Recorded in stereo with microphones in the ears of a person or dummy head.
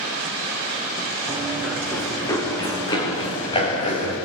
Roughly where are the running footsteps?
Centre.